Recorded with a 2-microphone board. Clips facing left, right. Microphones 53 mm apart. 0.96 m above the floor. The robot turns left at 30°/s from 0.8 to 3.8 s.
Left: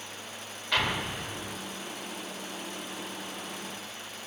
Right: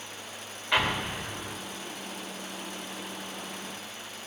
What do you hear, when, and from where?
0.7 s an explosion: 20° right (ahead or behind), 3.5 m; by 1.6 s 40° right (ahead or behind), 3.5 m